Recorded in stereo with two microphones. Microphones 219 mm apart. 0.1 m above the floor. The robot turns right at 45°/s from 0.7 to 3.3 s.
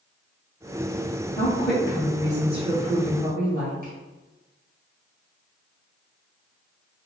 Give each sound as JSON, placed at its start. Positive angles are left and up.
{"t": 1.4, "sound": "a woman speaking", "azimuth_deg": 165, "distance_m": 2.0}